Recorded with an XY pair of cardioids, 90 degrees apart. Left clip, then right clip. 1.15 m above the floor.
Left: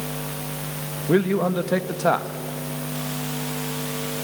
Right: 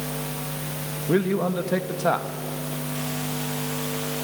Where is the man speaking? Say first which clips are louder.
Left 2 dB; 20° left, 1.4 m.